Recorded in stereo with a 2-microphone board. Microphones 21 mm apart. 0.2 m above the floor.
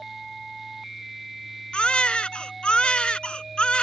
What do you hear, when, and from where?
1.7 s a baby crying: 55° left (ahead or behind)